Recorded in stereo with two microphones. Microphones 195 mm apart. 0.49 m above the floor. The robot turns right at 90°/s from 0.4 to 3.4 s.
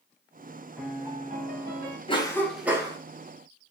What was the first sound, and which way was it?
A piano, 175° left.